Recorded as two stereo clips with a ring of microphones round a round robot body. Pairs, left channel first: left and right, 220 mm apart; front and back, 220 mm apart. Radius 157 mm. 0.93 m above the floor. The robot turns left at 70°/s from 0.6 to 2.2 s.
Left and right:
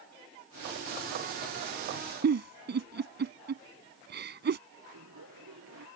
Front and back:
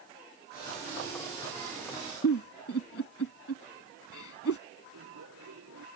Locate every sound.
2.2 s a giggle: 50° right
4.9 s laughter: 135° right